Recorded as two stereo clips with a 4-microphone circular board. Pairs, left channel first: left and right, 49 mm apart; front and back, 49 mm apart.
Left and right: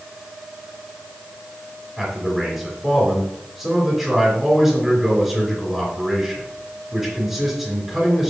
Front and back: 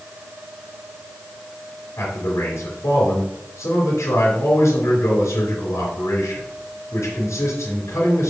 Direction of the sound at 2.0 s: Straight ahead.